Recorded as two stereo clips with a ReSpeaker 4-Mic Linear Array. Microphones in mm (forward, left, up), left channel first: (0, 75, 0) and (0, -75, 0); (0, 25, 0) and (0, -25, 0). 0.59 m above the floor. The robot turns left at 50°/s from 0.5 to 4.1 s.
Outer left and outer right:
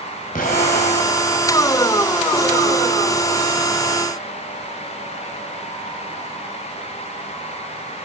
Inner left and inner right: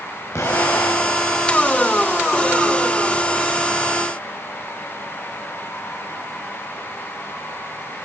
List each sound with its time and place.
0.3 s an explosion: 110° left, 3 m; by 1.4 s 60° left, 3 m